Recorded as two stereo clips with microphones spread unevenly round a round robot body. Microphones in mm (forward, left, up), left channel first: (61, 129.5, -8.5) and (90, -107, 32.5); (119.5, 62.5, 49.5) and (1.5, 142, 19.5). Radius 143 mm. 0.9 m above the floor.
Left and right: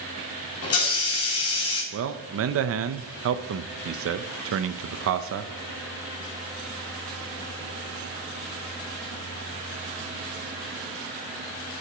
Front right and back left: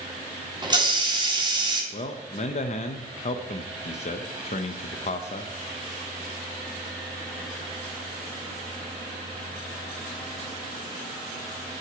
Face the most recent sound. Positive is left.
turn(degrees=-75)